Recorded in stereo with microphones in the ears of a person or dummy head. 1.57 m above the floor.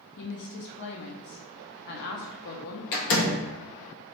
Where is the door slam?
60° left (ahead or behind), 0.7 m.